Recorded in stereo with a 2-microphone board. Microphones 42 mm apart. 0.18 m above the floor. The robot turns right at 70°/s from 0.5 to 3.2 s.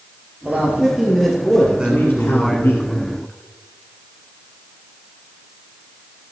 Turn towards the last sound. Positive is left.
turn(degrees=55)